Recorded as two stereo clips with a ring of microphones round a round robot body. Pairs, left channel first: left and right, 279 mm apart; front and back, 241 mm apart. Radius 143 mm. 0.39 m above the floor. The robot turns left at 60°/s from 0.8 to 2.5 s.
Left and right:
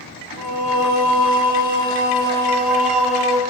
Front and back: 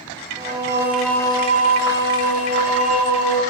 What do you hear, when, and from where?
0.4 s singing: 100° left, 1.5 m; by 3.4 s straight ahead, 1.5 m